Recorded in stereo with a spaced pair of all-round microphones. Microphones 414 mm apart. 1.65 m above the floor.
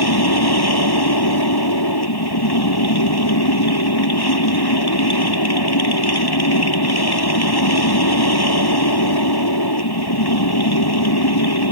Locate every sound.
0.0 s a machine running: 65° left (ahead or behind)